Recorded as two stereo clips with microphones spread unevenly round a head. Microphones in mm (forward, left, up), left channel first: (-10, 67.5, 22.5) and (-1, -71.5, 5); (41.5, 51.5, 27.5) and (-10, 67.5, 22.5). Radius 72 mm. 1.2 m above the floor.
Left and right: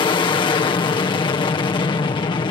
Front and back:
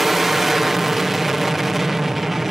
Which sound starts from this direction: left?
An aircraft, at 0.0 s.